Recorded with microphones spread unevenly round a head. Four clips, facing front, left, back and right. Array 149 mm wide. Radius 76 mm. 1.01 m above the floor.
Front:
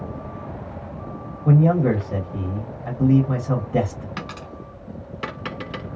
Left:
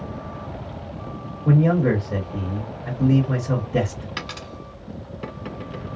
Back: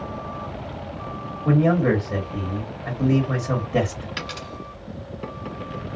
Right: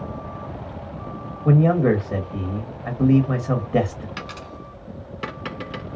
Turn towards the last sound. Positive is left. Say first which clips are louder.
# left 1 dB, even
turn(degrees=65)